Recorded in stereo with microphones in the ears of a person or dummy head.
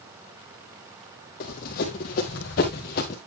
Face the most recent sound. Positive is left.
turn(degrees=35)  # may be behind; listen again after turning